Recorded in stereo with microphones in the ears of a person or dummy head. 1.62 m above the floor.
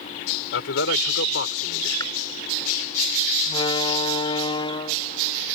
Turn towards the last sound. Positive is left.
turn(degrees=35)  # may be behind; listen again after turning